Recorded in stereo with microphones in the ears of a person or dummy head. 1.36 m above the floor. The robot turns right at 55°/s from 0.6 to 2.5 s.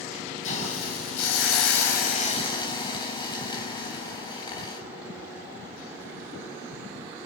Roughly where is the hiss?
Ahead left.